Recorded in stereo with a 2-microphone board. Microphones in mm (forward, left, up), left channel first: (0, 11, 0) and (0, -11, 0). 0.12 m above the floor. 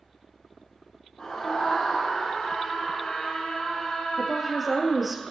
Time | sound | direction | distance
1.2 | a scream | 60° left (ahead or behind) | 3.5 m
4.2 | a woman speaking | 5° right (ahead or behind) | 2 m